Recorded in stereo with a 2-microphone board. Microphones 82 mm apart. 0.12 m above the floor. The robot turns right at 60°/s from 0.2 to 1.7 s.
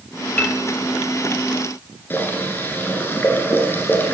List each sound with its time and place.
0.4 s a piano: 20° left (ahead or behind), 0.8 m; by 0.6 s 10° left (ahead or behind), 0.8 m
2.1 s boiling: 25° left (ahead or behind), 1.6 m